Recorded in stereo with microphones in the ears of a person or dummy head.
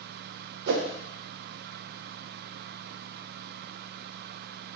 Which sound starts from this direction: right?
A whoosh, at 0.7 s.